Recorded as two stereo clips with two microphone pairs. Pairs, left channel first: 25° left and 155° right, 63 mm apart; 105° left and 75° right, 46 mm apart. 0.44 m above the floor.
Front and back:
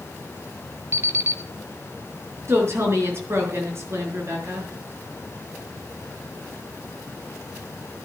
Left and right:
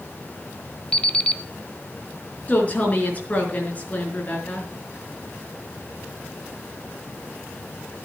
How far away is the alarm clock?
About 1.1 m.